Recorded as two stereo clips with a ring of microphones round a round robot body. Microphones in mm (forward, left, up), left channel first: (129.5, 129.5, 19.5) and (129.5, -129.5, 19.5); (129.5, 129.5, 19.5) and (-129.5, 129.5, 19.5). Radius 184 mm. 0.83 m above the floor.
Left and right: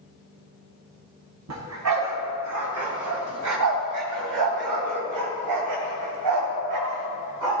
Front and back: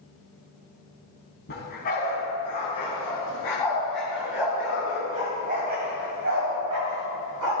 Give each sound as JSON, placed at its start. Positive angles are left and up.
{"t": 1.5, "sound": "a dog barking", "azimuth_deg": -65, "distance_m": 3.0}